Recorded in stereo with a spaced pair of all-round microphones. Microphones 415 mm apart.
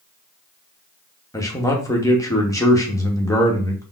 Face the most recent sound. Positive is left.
turn(degrees=10)  # may be behind; listen again after turning